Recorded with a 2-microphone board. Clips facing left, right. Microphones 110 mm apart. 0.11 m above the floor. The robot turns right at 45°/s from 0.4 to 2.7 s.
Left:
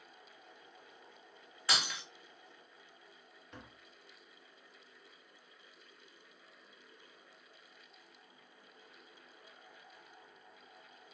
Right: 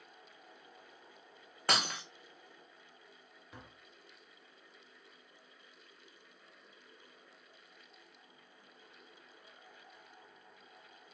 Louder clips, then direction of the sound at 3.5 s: Left 1 dB; 5° right (ahead or behind).